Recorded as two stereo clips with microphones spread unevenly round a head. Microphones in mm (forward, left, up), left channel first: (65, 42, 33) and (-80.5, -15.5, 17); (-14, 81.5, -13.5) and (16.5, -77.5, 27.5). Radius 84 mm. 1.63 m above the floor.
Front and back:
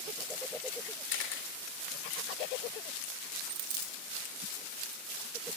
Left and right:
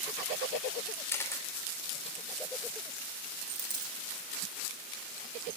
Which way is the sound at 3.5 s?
125° right.